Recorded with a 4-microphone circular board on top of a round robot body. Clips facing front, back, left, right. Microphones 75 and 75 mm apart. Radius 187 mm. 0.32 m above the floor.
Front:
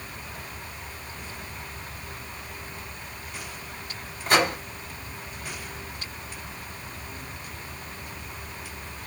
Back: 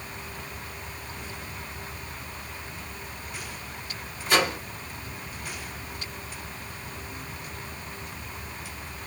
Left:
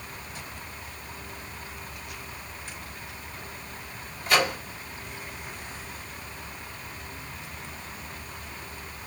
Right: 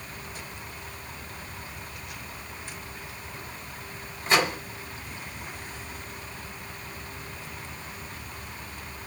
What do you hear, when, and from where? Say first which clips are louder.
4.3 s a microwave: front 2 dB, even; 30° right, 2.5 m